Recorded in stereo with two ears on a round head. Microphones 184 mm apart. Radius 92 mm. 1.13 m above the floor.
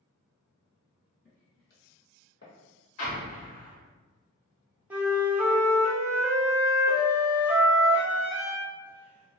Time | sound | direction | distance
1.2 | footsteps | 40° left (ahead or behind) | 1.6 m
3.0 | an explosion | 70° left (ahead or behind) | 1.5 m
4.9 | a flute | 5° right (ahead or behind) | 0.6 m